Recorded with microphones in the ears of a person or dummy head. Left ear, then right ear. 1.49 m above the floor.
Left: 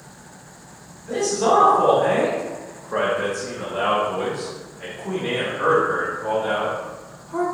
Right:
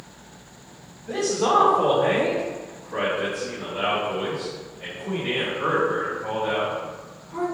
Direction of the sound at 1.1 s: Centre (ahead or behind).